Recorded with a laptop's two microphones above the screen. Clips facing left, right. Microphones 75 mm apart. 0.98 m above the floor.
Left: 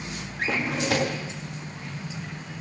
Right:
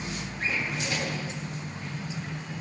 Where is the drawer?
75° left (ahead or behind), 0.7 m.